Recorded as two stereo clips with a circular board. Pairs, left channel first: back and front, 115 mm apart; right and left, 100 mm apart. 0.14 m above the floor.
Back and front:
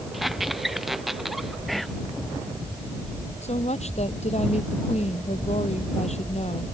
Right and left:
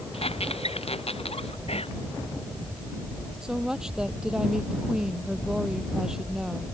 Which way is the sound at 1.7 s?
90° right.